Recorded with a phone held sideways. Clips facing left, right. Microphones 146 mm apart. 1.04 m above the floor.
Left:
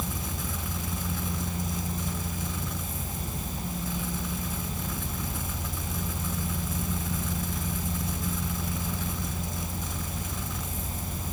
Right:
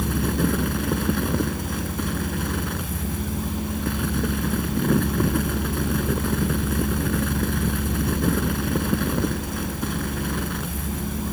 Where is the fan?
70° right (ahead or behind).